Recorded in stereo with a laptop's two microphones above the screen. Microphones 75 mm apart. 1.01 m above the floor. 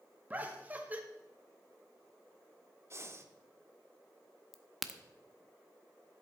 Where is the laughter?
20° right (ahead or behind), 1.7 m.